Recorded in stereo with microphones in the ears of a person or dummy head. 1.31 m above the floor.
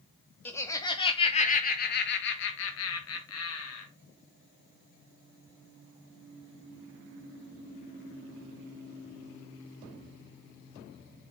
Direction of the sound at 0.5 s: 10° left (ahead or behind).